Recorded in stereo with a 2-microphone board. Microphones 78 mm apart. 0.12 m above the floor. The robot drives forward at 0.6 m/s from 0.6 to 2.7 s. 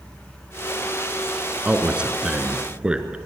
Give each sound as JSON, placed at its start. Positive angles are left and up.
{"t": 1.6, "sound": "a man speaking", "side_deg": -15, "distance_m": 1.6}